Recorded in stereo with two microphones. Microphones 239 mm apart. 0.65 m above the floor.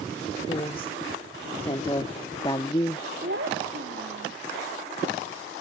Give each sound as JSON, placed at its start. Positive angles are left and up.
{"t": 0.5, "sound": "a woman speaking", "side_deg": 20}
{"t": 3.2, "sound": "a child speaking", "side_deg": -55}